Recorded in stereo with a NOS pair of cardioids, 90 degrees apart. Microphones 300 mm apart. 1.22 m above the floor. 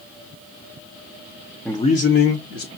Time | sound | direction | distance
1.6 | a man speaking | straight ahead | 0.5 m